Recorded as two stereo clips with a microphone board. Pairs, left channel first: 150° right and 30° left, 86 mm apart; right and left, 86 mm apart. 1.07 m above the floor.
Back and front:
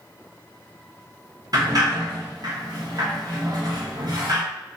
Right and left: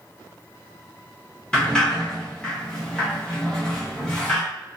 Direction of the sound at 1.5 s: 10° right.